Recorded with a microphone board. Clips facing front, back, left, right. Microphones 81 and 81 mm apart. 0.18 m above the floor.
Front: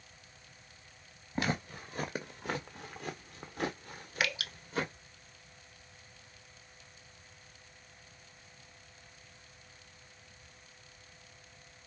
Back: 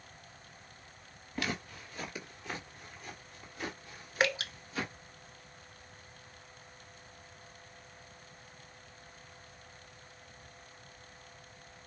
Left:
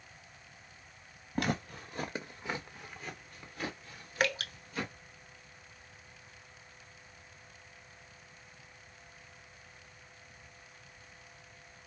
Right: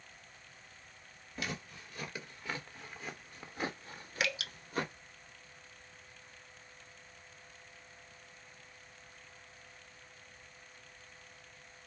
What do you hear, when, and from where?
1.4 s footsteps: 60° left, 1.4 m; by 4.9 s 55° right, 2 m
4.2 s dripping: 130° left, 0.7 m